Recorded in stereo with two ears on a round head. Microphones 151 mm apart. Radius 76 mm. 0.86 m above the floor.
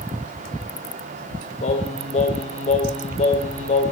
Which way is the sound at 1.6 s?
40° left (ahead or behind).